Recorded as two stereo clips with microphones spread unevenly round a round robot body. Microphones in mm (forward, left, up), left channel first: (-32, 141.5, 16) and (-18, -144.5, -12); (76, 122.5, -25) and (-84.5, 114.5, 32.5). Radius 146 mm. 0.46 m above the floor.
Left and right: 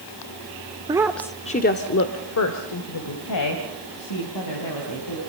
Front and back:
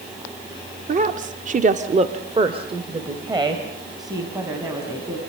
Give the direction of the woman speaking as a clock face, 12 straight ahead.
4 o'clock.